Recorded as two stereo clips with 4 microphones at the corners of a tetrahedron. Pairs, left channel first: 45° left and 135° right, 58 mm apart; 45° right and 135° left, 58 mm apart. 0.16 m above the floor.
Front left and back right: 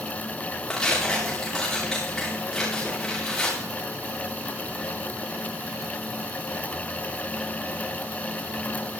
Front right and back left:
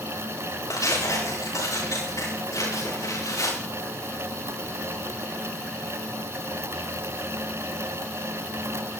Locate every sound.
0.7 s tearing paper: 35° right, 9 m